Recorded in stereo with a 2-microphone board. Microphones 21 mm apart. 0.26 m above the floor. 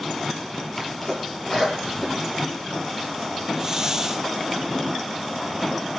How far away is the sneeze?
About 6.5 m.